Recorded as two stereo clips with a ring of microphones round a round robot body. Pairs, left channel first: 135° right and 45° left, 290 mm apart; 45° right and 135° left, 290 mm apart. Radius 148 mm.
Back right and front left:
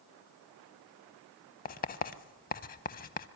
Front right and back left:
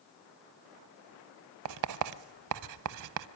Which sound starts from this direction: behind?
Writing, at 1.6 s.